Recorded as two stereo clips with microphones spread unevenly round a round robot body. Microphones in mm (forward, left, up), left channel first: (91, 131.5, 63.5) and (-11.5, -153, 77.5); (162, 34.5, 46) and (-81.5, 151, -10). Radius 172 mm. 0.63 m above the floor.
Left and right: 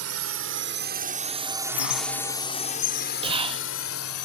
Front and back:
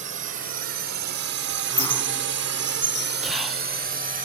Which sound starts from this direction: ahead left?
A squeak, at 1.7 s.